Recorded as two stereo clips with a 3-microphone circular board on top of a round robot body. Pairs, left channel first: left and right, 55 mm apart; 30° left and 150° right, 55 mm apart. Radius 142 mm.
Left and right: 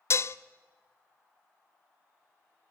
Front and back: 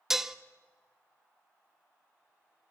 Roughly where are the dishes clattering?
Behind left.